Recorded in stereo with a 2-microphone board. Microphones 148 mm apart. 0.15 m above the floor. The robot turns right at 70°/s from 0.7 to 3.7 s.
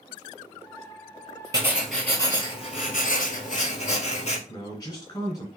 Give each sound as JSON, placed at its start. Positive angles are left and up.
{"t": 1.5, "sound": "writing", "azimuth_deg": -25, "distance_m": 1.0}
{"t": 4.5, "sound": "a man speaking", "side_deg": 25, "distance_m": 1.9}